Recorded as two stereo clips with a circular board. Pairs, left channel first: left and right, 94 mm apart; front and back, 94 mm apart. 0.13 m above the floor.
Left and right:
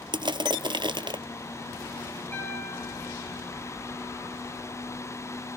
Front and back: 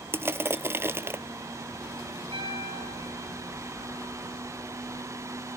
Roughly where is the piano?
Behind.